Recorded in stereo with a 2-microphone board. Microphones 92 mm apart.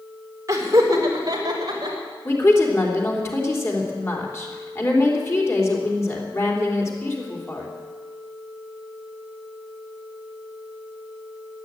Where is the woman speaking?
30° left (ahead or behind), 3.5 m.